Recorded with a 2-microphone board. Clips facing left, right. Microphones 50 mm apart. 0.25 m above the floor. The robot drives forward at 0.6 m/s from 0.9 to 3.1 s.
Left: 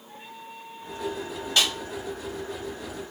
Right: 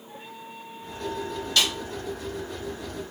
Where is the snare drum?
20° left (ahead or behind), 1.2 m.